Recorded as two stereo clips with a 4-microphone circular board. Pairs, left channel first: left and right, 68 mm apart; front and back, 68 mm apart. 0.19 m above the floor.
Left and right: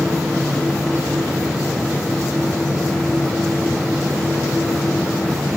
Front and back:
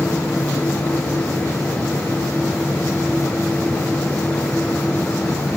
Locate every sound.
Only background noise.